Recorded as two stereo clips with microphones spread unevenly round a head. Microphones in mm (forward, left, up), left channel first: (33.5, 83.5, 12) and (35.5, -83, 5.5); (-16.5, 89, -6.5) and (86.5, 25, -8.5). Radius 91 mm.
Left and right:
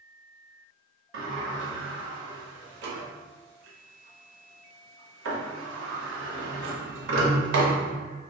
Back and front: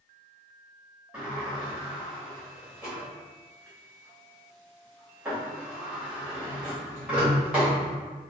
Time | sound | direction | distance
1.1 | a sliding door | 115° right | 0.7 m